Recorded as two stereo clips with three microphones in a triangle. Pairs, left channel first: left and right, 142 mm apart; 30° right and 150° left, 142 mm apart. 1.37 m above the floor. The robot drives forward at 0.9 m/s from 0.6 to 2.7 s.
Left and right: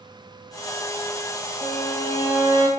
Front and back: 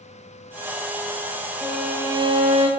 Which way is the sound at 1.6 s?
45° left.